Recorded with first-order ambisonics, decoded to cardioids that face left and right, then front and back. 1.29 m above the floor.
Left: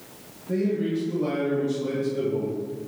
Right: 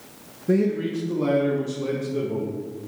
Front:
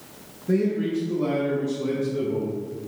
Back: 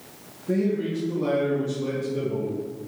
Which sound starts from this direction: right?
A man speaking, at 0.5 s.